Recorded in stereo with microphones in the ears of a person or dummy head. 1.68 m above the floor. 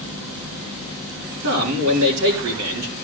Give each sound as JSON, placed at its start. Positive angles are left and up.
{"t": 1.4, "sound": "a man speaking", "side_deg": -75, "distance_m": 5.0}